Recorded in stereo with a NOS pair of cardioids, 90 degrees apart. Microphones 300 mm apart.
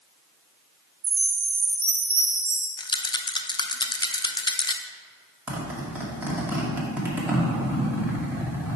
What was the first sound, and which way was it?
A chime, 50° right.